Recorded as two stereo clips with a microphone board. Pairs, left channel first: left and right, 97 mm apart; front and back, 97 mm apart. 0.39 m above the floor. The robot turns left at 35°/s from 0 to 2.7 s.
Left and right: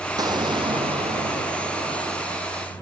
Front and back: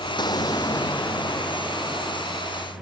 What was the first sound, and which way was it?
An explosion, 40° right.